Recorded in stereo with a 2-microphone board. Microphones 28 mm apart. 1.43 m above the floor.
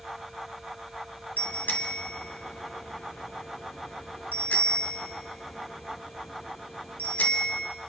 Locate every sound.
1.4 s a bicycle bell: 75° left (ahead or behind), 3 m